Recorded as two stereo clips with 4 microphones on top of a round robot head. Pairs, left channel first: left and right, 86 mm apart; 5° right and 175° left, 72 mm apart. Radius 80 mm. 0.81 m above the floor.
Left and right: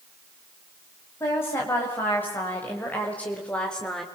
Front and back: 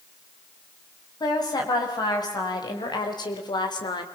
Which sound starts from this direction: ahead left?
A woman speaking, at 1.2 s.